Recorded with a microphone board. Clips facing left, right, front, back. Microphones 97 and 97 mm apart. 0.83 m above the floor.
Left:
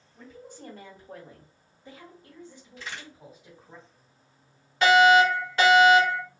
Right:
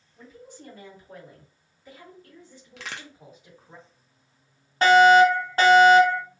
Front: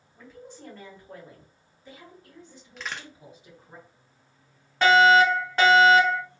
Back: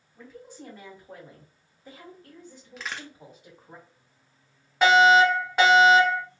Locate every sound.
0.1 s a woman speaking: 90° left, 1.6 m; by 3.8 s straight behind, 2 m
2.8 s a crack: 90° right, 0.6 m
4.8 s a fire alarm: 110° right, 1.7 m